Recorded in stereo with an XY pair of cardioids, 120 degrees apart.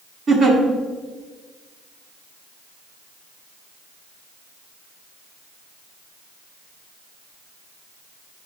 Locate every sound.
0.3 s a giggle: 40° right, 2.0 m